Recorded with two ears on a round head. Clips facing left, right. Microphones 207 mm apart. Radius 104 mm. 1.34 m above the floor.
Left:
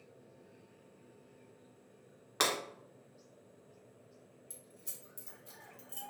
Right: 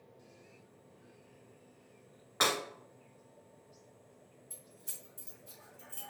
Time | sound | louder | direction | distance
2.4 | breaking glass | right 1 dB | 40° left (ahead or behind) | 1.3 m
4.5 | keys jangling | even | 50° left (ahead or behind) | 1.6 m